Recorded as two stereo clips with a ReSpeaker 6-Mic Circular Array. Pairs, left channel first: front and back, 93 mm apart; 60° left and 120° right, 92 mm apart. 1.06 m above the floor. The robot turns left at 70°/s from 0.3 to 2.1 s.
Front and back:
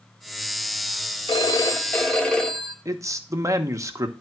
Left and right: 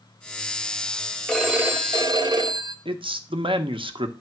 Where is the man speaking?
125° right, 0.9 m.